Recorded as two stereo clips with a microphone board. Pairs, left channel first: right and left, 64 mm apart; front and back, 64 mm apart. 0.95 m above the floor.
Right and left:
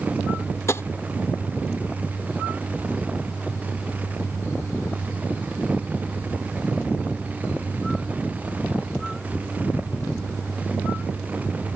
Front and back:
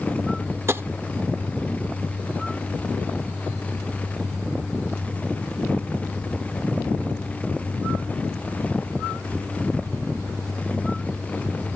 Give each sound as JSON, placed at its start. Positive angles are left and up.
{"t": 0.7, "sound": "tapping", "azimuth_deg": -130}